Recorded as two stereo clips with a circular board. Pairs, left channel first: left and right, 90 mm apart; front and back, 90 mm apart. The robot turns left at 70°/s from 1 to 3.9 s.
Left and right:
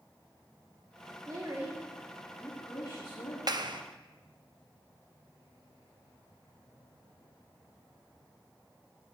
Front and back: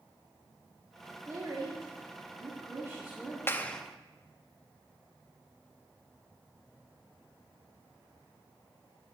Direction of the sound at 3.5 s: 60° right.